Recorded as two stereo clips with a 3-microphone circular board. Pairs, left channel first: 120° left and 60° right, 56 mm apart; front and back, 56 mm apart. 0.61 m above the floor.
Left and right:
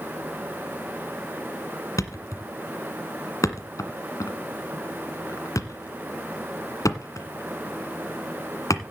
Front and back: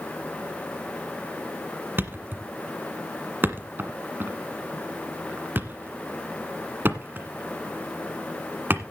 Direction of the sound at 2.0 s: 130° left.